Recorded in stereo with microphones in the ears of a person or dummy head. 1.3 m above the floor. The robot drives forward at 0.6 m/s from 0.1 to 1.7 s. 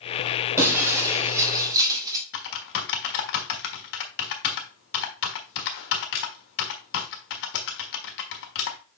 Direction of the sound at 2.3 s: 55° left (ahead or behind).